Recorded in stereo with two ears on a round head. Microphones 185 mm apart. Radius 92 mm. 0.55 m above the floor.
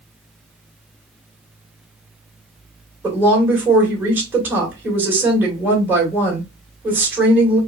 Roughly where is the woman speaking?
Centre.